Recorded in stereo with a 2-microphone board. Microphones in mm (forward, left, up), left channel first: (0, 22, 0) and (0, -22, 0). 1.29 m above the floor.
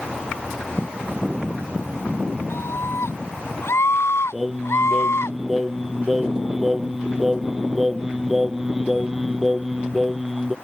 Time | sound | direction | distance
2.5 | a scream | 65° left (ahead or behind) | ?
4.3 | singing | 5° right (ahead or behind) | ?